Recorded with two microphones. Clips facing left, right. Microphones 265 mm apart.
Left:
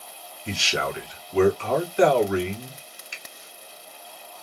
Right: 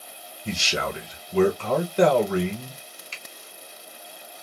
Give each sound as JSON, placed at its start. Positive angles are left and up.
{"t": 0.5, "sound": "a man speaking", "side_deg": -45, "distance_m": 1.2}
{"t": 3.1, "sound": "a finger snap", "side_deg": 15, "distance_m": 0.9}